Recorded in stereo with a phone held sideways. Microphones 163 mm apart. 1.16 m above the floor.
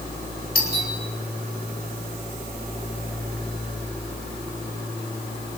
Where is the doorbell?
60° left (ahead or behind), 6 m.